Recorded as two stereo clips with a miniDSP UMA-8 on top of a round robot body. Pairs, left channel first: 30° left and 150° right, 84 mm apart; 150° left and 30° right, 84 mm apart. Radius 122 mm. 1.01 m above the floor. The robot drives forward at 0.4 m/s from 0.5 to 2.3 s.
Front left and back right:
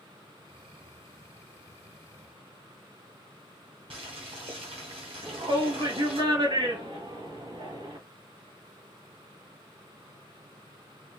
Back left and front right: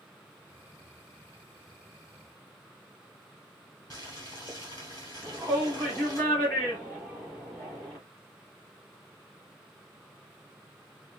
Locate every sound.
3.9 s boiling: 165° right, 0.9 m
5.2 s a shout: 145° right, 1.9 m